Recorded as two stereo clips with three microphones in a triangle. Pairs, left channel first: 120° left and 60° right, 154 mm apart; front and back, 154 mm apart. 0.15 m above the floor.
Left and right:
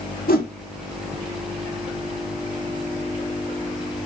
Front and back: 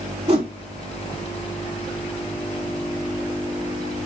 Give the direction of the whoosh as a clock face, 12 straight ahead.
8 o'clock.